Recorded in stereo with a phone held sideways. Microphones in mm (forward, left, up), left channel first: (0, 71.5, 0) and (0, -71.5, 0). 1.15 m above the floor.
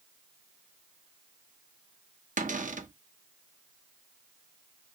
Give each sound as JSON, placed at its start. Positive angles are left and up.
{"t": 2.4, "sound": "a cupboard door", "side_deg": -65, "distance_m": 0.5}